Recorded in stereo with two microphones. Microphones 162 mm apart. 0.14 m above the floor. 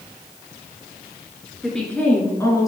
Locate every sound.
1.6 s a woman speaking: centre (ahead or behind), 1.9 m; by 2.7 s 25° left (ahead or behind), 1.7 m